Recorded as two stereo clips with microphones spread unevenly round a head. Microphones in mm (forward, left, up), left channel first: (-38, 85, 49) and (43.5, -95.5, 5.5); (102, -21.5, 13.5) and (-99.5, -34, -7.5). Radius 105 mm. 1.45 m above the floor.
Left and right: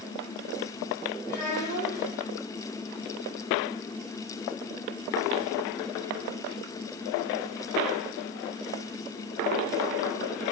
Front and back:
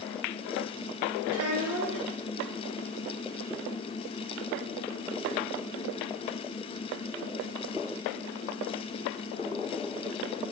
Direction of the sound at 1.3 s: 170° right.